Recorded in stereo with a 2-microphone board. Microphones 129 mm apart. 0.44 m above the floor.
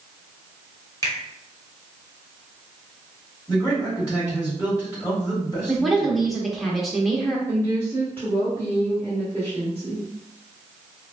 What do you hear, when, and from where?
1.0 s a finger snap: 30° left (ahead or behind), 0.9 m
3.5 s a man speaking: 25° left (ahead or behind), 1.4 m
5.7 s a woman speaking: centre (ahead or behind), 0.8 m
7.5 s a woman speaking: 15° left (ahead or behind), 1.5 m